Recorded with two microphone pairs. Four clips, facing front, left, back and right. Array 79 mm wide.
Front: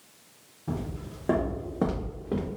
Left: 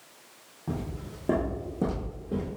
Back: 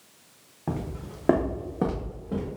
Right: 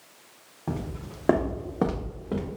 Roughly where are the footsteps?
Behind right.